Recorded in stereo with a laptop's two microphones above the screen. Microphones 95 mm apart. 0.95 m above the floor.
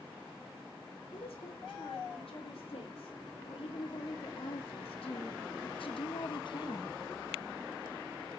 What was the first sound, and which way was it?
A woman speaking, 80° left.